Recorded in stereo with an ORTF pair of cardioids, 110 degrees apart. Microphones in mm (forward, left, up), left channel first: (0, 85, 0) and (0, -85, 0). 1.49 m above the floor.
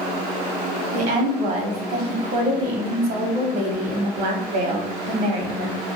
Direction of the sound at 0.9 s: 60° right.